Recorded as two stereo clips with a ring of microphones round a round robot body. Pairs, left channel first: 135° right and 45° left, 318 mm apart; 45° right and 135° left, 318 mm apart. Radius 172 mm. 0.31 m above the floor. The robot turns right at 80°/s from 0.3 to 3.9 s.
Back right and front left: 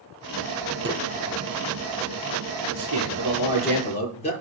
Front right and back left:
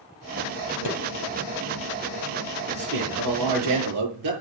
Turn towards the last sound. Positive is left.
turn(degrees=155)